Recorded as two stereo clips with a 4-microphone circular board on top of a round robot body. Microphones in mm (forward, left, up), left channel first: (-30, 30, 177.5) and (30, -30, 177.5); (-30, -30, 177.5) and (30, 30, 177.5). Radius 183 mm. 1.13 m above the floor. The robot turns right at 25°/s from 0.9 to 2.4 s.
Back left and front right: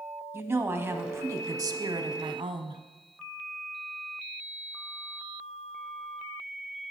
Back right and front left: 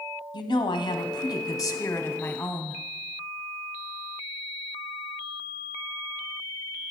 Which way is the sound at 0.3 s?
105° right.